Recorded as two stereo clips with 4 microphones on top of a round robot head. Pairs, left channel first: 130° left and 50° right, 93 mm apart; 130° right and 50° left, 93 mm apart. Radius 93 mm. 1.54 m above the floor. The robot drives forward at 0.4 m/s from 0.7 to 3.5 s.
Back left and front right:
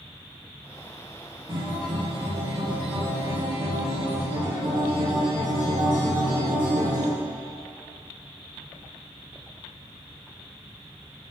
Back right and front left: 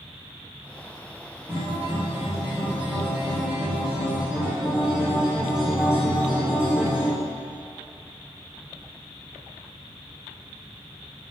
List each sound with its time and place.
1.5 s a guitar: 20° right, 2.5 m; by 7.1 s 30° right, 1.6 m